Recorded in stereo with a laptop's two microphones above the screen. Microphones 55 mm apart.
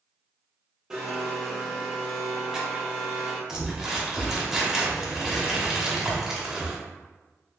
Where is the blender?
10° right (ahead or behind), 0.7 m.